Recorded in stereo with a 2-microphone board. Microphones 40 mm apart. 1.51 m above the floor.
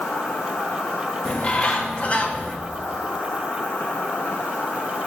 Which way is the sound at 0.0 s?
85° left.